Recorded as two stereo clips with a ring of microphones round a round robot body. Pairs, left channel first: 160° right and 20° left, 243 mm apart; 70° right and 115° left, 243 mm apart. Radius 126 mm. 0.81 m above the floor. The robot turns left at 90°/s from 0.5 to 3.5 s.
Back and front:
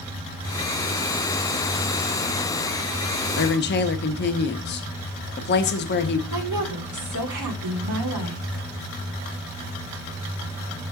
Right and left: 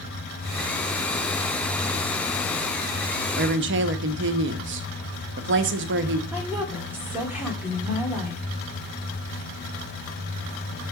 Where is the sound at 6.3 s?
30° left, 2.0 m.